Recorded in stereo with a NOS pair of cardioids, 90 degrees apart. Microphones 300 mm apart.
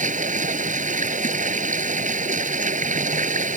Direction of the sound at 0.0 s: 25° right.